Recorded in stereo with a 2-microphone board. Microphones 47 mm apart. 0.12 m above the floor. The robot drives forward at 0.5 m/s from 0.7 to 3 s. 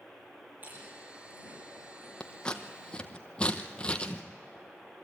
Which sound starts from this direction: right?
Chewing, at 0.6 s.